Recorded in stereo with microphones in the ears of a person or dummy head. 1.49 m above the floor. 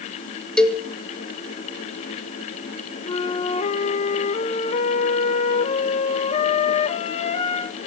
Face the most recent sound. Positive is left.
turn(degrees=40)  # may be behind; listen again after turning